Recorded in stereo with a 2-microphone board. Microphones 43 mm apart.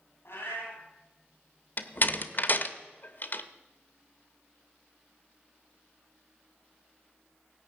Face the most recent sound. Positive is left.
turn(degrees=50)  # may be behind; listen again after turning